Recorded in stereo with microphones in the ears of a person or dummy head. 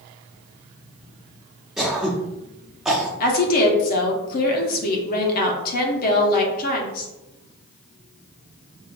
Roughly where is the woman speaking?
Left.